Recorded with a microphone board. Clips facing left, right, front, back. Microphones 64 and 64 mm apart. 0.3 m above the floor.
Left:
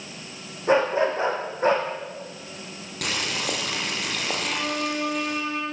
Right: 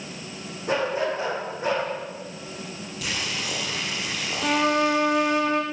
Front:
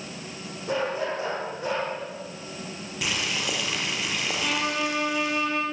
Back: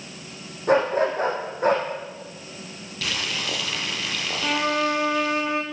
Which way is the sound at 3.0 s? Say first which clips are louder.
Left 3 dB, even; 70° left.